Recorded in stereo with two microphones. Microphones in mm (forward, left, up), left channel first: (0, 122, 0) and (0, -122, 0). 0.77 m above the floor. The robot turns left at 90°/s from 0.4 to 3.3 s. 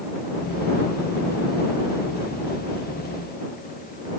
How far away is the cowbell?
I don't hear a cowbell.